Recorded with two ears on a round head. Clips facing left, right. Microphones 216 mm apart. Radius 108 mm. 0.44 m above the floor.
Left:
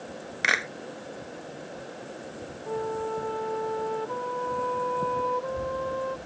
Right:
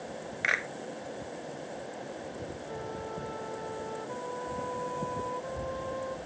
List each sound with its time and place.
0.4 s a clap: 55° left (ahead or behind)
2.7 s a flute: 60° left (ahead or behind)